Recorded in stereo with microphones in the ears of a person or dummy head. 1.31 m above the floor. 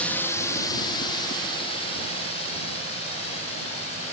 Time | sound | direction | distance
0.0 | a drone | 5° left (ahead or behind) | ?